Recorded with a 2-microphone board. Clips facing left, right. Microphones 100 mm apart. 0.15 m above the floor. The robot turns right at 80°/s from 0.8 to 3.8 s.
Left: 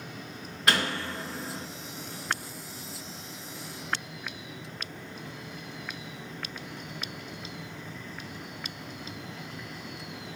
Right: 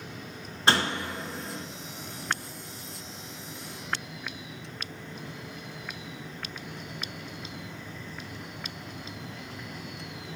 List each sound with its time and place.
0.7 s a door slam: 40° right, 1.3 m; by 1.7 s 30° left, 1.3 m